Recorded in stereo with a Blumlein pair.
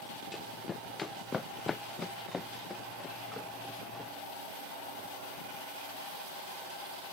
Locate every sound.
0.3 s running footsteps: 15° left; by 4.1 s 10° left